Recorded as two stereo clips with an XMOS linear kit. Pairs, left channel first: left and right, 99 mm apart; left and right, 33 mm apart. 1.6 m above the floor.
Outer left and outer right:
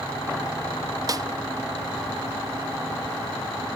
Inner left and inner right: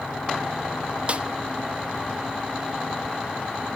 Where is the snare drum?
35° right (ahead or behind), 0.6 m.